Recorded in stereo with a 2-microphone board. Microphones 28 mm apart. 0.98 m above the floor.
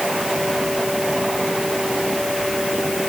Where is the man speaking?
I don't hear a man speaking.